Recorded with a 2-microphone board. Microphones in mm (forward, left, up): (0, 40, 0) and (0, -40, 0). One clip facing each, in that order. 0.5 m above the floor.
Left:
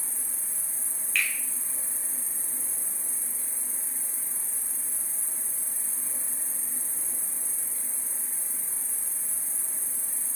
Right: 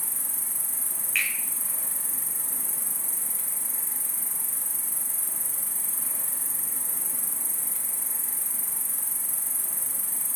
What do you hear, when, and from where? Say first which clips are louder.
0.0 s an insect: right 3 dB; 80° right, 1.0 m
1.1 s a finger snap: left 1 dB; 5° right (ahead or behind), 2 m